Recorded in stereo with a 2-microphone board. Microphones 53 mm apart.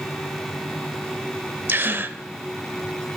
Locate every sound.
1.7 s a gasp: 40° right (ahead or behind), 0.6 m